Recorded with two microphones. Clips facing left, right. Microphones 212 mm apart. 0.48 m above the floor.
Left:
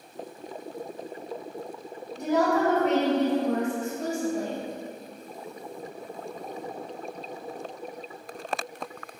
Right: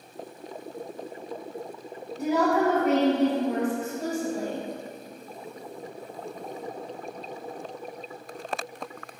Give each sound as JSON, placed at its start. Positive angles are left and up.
{"t": 2.2, "sound": "a woman speaking", "side_deg": -5, "distance_m": 1.0}